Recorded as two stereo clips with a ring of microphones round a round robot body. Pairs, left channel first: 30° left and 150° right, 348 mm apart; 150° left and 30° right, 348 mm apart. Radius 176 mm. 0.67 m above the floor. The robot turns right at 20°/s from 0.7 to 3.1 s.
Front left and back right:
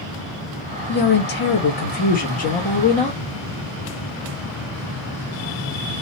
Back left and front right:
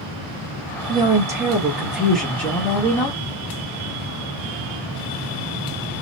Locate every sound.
0.9 s a woman speaking: 35° left, 1.0 m; by 3.2 s 80° left, 1.0 m